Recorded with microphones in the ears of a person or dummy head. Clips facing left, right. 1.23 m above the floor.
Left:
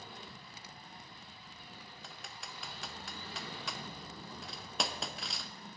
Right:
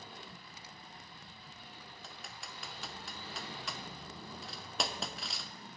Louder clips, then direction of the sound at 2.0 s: Even; 5° right (ahead or behind).